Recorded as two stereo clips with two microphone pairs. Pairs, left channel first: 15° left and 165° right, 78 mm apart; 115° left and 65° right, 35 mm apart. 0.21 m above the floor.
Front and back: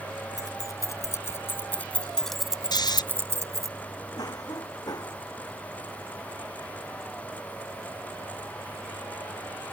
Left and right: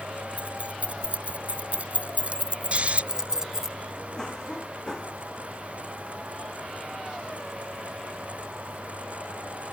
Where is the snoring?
10° right.